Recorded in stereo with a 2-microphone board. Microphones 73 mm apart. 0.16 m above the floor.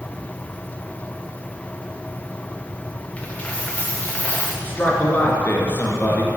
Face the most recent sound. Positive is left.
turn(degrees=25)  # may be behind; listen again after turning